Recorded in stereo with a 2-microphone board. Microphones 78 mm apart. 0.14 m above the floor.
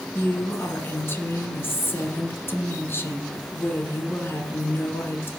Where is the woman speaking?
30° left (ahead or behind), 1.7 m.